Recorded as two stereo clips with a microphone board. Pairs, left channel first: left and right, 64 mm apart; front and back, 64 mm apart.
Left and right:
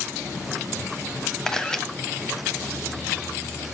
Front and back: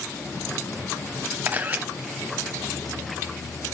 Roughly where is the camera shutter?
Behind left.